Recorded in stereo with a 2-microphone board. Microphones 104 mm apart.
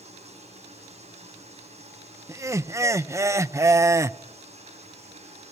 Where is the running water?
80° right, 8 m.